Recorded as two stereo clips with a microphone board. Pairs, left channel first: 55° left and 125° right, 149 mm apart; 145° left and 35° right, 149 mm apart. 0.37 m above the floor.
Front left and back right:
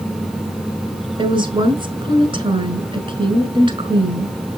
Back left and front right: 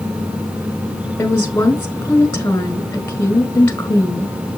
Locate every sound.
1.2 s a woman speaking: 150° right, 1.5 m